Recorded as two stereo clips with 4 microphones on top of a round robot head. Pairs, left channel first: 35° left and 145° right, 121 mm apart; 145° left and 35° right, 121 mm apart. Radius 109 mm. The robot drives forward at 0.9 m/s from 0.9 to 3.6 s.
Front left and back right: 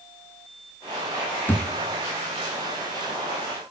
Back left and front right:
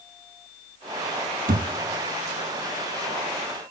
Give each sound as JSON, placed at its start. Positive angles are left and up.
{"t": 1.5, "sound": "a thud", "azimuth_deg": -35, "distance_m": 0.6}